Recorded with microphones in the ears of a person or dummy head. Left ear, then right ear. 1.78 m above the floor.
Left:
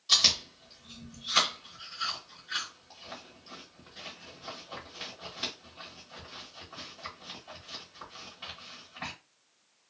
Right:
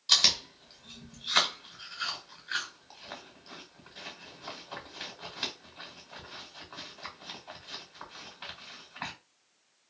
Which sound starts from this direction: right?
Chewing, at 0.1 s.